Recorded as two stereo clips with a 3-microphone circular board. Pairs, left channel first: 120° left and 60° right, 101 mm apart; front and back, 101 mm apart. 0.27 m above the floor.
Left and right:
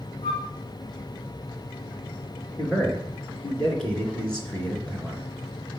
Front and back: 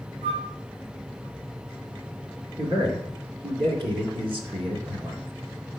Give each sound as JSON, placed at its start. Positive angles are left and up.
{"t": 0.2, "sound": "a flute", "azimuth_deg": 170, "distance_m": 4.5}
{"t": 2.6, "sound": "a man speaking", "azimuth_deg": -160, "distance_m": 3.0}